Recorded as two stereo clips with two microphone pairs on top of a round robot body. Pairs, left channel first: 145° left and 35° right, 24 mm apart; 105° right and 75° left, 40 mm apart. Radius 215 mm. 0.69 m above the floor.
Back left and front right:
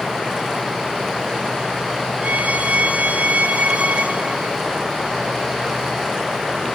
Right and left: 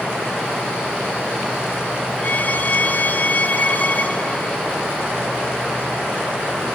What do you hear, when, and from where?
2.2 s a violin: 60° right, 1.0 m